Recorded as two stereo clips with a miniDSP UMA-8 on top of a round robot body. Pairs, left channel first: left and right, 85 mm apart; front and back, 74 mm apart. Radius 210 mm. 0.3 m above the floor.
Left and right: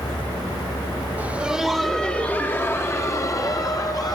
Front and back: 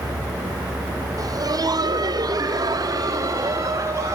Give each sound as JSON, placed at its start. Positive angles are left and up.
{"t": 1.2, "sound": "laughter", "azimuth_deg": -160, "distance_m": 2.0}